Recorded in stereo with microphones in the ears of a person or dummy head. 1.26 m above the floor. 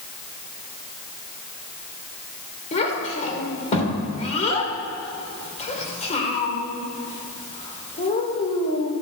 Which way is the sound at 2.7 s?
40° left (ahead or behind).